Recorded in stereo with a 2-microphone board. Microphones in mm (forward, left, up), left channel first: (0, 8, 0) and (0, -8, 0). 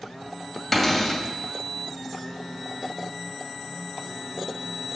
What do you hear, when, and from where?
0.7 s a cupboard door: centre (ahead or behind), 2 m